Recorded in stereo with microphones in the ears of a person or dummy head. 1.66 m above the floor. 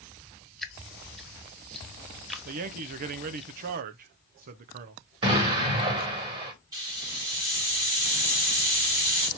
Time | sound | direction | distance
0.6 | dripping | 5° left (ahead or behind) | 0.6 m
2.5 | a man speaking | 50° right (ahead or behind) | 0.6 m
5.2 | an explosion | 25° right (ahead or behind) | 1.5 m
6.7 | a hiss | 25° right (ahead or behind) | 1.7 m